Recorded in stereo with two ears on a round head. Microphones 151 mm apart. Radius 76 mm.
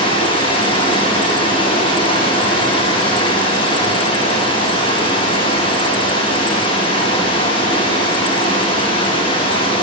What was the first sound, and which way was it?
Running water, 30° left (ahead or behind).